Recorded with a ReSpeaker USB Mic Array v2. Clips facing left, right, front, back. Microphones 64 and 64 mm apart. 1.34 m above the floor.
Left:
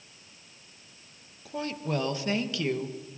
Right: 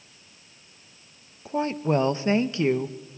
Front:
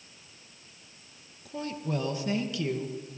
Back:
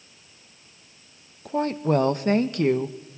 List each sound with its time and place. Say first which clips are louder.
1.4 s a woman speaking: right 8 dB, back 11 dB; 150° right, 0.9 m